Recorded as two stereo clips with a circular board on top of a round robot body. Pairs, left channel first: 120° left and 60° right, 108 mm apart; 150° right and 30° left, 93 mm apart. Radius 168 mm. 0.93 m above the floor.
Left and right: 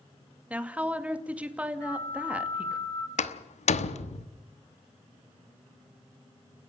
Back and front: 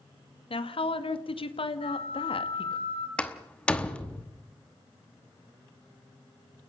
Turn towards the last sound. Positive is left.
turn(degrees=130)